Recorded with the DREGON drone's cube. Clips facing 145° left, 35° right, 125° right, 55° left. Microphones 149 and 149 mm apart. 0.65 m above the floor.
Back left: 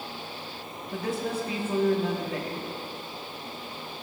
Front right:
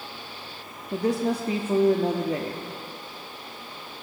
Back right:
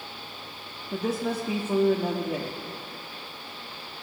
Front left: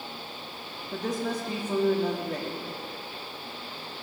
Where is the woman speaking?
50° right, 0.7 m.